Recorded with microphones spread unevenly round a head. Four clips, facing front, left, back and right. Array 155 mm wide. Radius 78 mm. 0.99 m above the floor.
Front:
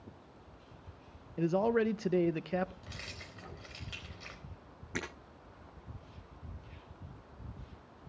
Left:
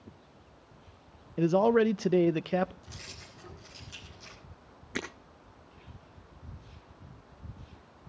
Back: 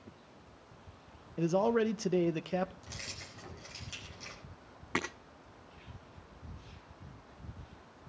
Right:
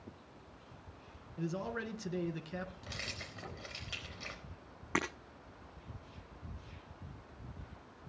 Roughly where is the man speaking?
Left.